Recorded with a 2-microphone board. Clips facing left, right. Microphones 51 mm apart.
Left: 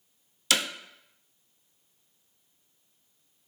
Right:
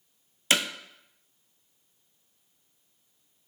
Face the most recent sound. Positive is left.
turn(degrees=-30)  # may be behind; listen again after turning